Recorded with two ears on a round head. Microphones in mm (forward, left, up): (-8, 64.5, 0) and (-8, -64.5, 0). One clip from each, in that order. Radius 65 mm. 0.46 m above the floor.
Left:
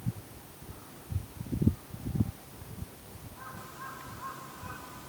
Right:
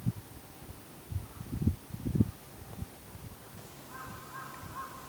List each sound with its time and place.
Only background noise.